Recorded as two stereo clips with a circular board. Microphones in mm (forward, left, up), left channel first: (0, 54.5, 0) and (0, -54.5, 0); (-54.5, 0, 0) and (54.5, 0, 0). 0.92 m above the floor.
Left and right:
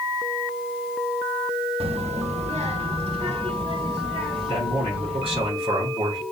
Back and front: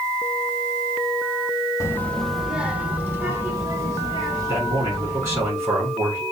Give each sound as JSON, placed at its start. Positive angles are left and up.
{"t": 1.8, "sound": "a child speaking", "azimuth_deg": -115, "distance_m": 0.7}
{"t": 4.5, "sound": "a man speaking", "azimuth_deg": -60, "distance_m": 3.0}